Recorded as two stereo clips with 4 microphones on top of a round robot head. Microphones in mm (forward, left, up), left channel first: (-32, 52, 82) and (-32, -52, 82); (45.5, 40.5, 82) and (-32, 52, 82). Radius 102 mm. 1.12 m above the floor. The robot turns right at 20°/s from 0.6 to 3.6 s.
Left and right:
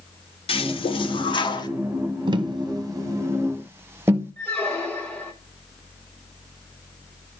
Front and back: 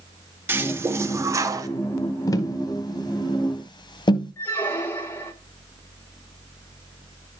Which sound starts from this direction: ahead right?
Tapping, at 2.3 s.